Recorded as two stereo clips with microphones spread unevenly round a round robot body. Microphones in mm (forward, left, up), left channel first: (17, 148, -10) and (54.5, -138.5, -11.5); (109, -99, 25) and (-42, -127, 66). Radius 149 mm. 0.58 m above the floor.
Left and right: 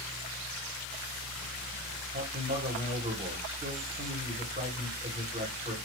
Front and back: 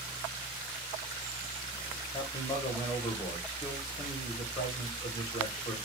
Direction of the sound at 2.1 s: 20° right.